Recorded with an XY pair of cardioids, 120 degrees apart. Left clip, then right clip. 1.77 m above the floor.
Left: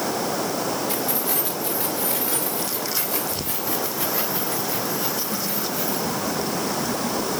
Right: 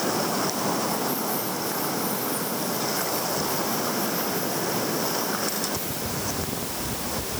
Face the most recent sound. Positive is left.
turn(degrees=55)